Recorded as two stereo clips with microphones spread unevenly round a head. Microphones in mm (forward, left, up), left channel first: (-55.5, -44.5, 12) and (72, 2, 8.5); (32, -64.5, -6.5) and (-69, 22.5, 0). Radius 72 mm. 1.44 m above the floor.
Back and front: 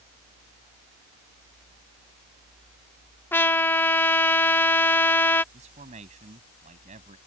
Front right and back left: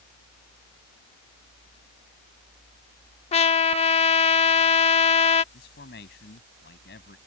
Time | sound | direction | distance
3.3 | a trumpet | 85° right | ?
5.5 | a man speaking | 20° right | ?